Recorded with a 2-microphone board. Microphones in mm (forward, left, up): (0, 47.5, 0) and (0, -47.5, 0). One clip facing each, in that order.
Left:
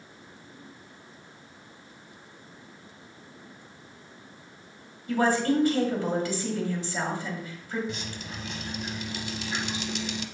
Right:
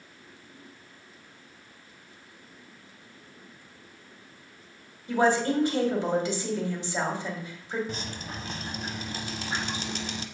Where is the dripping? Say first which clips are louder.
Right 1 dB; 40° right (ahead or behind), 0.7 m.